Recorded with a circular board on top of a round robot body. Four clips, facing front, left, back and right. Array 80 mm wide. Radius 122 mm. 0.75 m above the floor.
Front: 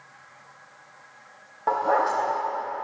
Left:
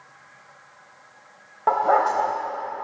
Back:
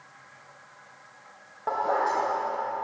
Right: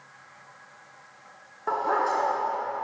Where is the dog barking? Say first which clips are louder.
Left 6 dB, front 3 dB; 85° left, 0.8 m.